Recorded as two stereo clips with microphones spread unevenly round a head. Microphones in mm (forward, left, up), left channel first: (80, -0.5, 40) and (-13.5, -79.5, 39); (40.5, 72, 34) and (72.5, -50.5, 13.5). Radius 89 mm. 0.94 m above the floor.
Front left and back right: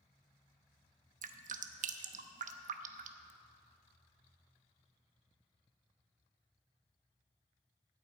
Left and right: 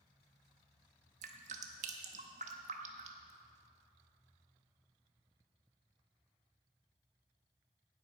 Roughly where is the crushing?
I don't hear crushing.